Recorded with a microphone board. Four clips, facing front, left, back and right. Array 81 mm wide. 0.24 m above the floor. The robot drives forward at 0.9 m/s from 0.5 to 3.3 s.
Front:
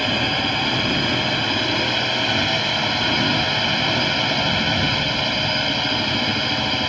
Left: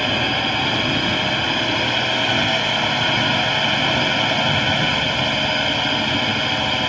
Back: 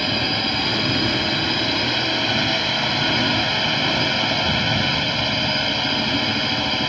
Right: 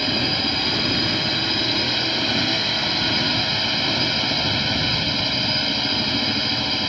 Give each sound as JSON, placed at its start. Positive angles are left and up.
{"t": 0.0, "sound": "a drone", "azimuth_deg": 75}